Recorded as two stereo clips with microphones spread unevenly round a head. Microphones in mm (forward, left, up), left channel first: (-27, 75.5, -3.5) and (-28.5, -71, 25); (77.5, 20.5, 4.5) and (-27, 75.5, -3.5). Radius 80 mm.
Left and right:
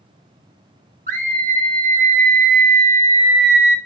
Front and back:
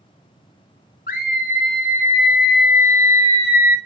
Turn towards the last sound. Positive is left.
turn(degrees=-45)